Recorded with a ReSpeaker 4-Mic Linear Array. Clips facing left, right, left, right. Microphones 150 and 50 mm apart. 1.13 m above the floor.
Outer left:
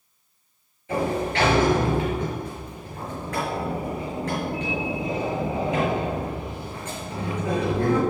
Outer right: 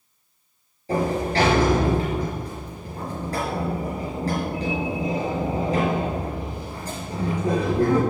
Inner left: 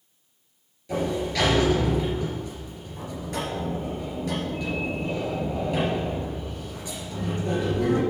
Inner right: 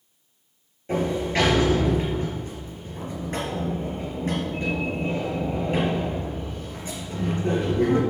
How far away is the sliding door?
About 3.5 m.